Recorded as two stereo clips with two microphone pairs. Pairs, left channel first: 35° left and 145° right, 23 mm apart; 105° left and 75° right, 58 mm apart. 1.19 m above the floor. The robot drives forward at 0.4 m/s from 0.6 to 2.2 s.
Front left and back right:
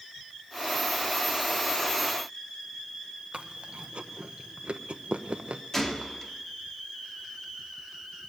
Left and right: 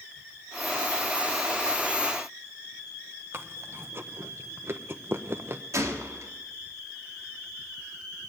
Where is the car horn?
I don't hear a car horn.